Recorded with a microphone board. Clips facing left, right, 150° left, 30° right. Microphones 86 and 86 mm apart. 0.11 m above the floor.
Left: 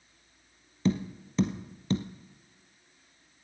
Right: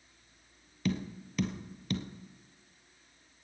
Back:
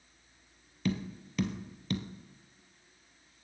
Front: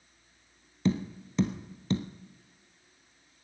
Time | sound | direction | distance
0.8 | tapping | 30° left | 1.2 m